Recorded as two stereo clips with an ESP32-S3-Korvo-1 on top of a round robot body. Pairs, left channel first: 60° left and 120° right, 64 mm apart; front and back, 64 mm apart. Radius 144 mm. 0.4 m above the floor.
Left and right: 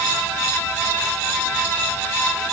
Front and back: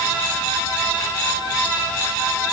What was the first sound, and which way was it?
Only background noise.